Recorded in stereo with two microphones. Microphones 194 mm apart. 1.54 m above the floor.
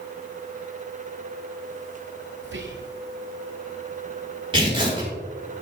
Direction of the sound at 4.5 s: 25° right (ahead or behind).